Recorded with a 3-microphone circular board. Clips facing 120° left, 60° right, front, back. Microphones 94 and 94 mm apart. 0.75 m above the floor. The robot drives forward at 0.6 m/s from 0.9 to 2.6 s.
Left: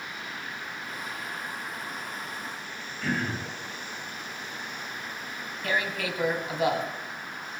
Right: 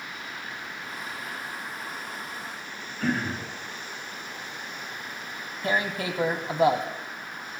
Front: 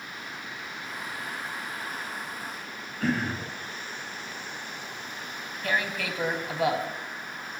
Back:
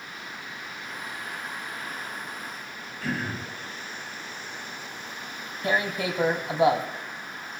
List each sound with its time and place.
3.0 s throat clearing: 25° right, 7 m
5.6 s tearing paper: 115° right, 1.2 m